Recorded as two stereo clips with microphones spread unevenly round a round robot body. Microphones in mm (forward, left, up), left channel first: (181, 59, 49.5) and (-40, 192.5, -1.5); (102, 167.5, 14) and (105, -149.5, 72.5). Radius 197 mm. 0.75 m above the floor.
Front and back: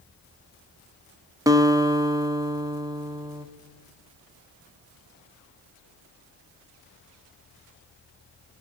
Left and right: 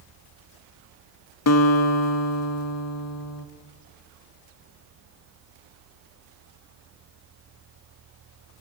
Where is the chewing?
I don't hear chewing.